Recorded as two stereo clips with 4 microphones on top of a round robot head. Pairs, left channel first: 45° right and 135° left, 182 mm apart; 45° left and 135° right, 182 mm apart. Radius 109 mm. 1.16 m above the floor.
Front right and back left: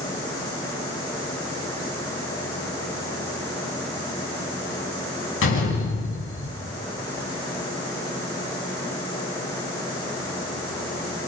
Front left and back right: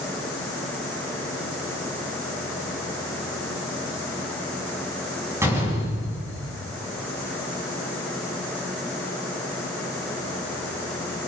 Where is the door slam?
60° right, 9 m.